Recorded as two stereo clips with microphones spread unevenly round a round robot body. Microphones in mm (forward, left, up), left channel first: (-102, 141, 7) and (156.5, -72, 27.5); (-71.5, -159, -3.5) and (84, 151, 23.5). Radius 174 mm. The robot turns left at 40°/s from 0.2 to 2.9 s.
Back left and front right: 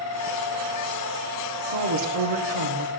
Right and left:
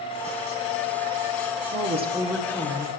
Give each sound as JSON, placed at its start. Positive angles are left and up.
{"t": 1.7, "sound": "a woman speaking", "azimuth_deg": 0, "distance_m": 1.5}